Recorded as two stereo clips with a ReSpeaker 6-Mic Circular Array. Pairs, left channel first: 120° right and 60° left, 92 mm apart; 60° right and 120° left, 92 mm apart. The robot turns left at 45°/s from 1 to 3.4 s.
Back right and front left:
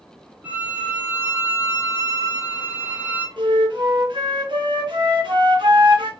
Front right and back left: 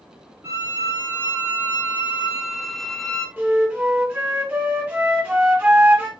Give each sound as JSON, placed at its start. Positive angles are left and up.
{"t": 0.4, "sound": "a violin", "azimuth_deg": 110, "distance_m": 0.8}
{"t": 3.4, "sound": "a flute", "azimuth_deg": 55, "distance_m": 1.5}